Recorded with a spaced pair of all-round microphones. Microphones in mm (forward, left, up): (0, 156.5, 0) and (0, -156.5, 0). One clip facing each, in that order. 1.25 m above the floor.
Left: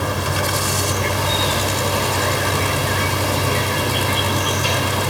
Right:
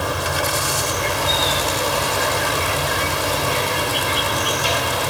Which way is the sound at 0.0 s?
30° left (ahead or behind).